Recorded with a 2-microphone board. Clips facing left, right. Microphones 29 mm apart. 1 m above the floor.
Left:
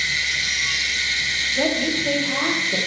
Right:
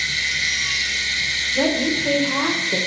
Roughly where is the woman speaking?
Right.